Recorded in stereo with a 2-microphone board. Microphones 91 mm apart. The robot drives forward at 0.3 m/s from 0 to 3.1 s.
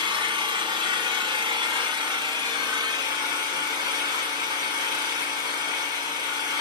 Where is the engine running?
60° right (ahead or behind), 1.2 m; by 6.6 s 50° right (ahead or behind), 1.3 m.